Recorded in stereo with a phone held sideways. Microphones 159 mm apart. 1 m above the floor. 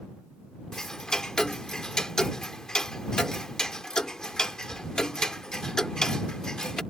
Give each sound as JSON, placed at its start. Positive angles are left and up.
{"t": 0.7, "sound": "ticking", "side_deg": 5}